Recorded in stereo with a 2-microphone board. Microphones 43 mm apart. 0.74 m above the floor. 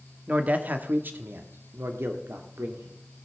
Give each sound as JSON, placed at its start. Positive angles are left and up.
{"t": 0.3, "sound": "a man speaking", "side_deg": -35, "distance_m": 1.4}